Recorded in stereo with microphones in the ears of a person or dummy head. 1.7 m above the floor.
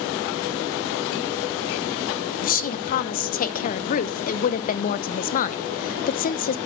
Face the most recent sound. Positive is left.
turn(degrees=45)  # may be behind; listen again after turning